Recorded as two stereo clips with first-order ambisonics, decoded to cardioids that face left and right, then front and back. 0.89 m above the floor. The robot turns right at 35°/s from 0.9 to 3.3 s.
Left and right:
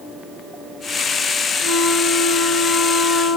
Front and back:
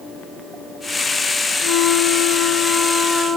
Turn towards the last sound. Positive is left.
turn(degrees=105)